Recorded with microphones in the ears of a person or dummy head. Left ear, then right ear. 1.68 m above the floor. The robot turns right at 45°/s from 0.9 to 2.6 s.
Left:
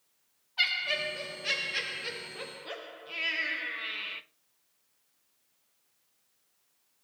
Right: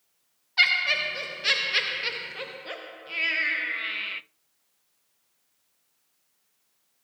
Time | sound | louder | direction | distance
0.6 | laughter | right 7 dB | 95° right | 0.7 m